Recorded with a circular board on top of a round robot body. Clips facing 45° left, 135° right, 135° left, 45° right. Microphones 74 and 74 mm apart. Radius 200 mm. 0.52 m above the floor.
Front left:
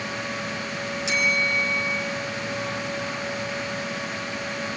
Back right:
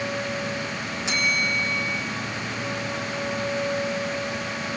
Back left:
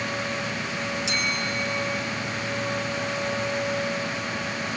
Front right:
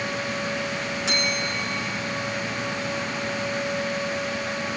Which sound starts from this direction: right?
A bell, at 1.1 s.